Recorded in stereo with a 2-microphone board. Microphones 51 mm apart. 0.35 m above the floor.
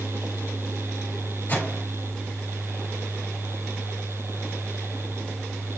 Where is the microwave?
35° left (ahead or behind), 5 m.